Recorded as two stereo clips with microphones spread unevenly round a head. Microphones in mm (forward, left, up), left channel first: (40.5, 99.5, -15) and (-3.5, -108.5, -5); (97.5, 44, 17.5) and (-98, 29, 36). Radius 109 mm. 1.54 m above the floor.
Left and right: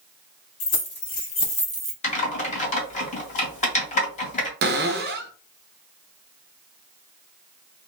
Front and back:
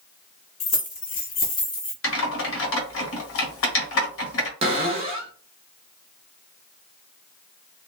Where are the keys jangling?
60° left, 1.6 m; by 1.9 s 50° right, 0.9 m.